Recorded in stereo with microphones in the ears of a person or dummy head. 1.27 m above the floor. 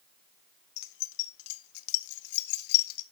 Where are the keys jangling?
55° left (ahead or behind), 0.8 m; by 3.0 s 50° left (ahead or behind), 1.4 m.